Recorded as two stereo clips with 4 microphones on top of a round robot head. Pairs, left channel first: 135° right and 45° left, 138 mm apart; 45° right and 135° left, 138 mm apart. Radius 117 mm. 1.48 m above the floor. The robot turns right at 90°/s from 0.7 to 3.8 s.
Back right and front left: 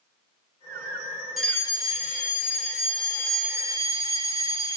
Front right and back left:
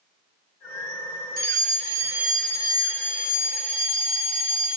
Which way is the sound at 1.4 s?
135° left.